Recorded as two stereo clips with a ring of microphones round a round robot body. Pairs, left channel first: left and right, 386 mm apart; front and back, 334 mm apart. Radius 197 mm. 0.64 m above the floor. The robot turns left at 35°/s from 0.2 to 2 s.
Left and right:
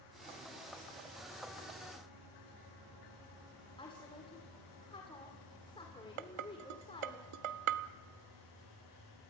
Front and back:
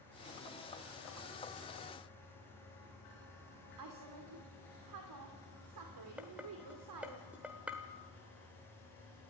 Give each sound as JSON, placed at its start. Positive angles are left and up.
{"t": 3.8, "sound": "a woman speaking", "azimuth_deg": 165, "distance_m": 2.5}
{"t": 6.2, "sound": "dishes clattering", "azimuth_deg": -95, "distance_m": 1.2}